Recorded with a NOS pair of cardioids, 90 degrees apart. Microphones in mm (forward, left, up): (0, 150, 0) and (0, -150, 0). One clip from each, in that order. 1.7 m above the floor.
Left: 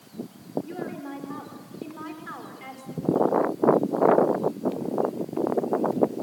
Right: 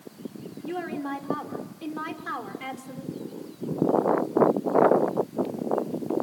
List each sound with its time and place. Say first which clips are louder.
0.6 s a woman speaking: right 3 dB; 50° right, 5.5 m